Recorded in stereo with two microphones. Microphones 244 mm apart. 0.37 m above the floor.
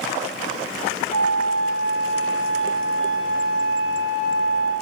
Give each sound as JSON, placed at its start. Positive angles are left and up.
{"t": 1.1, "sound": "a flute", "side_deg": 60, "distance_m": 5.5}